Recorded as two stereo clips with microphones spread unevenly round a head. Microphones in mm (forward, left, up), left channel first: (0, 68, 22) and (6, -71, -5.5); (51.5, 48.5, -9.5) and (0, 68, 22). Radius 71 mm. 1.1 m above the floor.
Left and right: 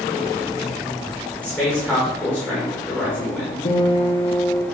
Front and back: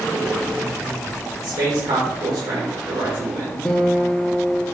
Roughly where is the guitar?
Left.